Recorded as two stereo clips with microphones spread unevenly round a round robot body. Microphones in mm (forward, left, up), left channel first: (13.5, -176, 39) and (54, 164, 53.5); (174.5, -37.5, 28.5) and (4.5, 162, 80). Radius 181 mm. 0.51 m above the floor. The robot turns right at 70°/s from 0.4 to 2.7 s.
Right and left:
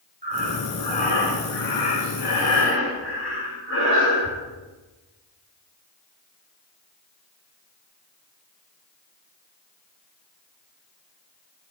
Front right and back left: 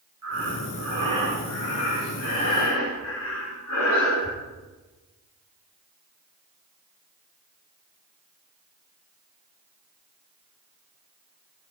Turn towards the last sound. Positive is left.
turn(degrees=-45)